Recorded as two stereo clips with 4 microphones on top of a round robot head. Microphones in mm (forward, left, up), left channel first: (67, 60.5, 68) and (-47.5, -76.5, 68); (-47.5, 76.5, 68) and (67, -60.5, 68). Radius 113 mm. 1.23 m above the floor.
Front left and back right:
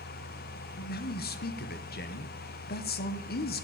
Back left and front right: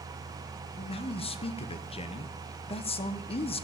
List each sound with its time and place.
0.8 s a man speaking: 75° left, 1.0 m